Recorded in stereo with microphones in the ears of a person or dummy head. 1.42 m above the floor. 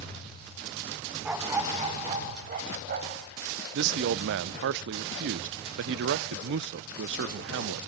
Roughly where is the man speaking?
Right.